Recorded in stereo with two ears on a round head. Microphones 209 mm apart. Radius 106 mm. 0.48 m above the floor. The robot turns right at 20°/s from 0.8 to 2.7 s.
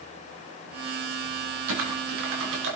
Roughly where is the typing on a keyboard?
Right.